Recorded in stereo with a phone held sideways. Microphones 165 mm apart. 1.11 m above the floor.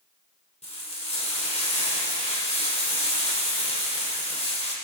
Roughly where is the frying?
Left.